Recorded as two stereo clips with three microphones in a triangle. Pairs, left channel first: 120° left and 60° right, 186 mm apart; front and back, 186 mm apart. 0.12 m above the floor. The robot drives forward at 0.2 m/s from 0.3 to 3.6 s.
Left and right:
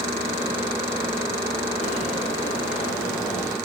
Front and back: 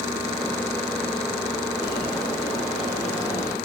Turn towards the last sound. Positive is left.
turn(degrees=75)